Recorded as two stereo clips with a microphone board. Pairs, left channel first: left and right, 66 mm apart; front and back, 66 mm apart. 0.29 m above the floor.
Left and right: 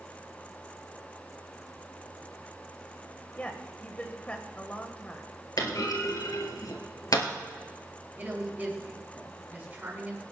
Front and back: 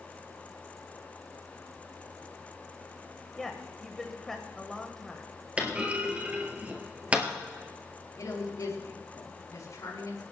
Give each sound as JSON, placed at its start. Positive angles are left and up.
{"t": 3.4, "sound": "a woman speaking", "azimuth_deg": 75, "distance_m": 1.1}
{"t": 5.6, "sound": "a clunk", "azimuth_deg": 115, "distance_m": 1.8}
{"t": 8.2, "sound": "a woman speaking", "azimuth_deg": -25, "distance_m": 5.5}